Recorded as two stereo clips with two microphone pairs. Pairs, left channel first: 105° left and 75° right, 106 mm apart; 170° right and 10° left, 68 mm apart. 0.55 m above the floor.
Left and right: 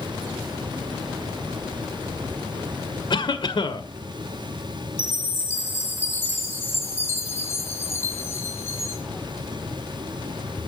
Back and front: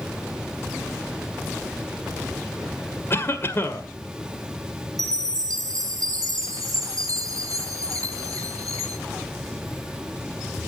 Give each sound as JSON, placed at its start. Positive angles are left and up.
{"t": 3.1, "sound": "a cough", "azimuth_deg": 140, "distance_m": 1.9}
{"t": 5.0, "sound": "a chime", "azimuth_deg": 45, "distance_m": 5.0}